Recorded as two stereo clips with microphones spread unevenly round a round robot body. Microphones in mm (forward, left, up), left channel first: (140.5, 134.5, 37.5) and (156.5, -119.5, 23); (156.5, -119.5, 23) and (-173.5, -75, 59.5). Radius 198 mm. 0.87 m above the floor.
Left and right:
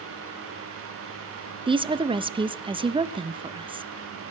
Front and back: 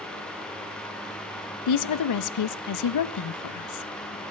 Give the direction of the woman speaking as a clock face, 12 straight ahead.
1 o'clock.